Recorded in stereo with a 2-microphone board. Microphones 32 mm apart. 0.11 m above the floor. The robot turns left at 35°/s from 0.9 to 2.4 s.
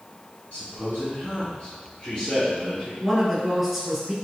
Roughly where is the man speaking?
Left.